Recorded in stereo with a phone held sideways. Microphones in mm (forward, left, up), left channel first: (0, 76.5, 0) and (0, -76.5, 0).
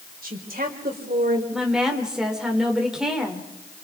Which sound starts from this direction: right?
A woman speaking, at 0.2 s.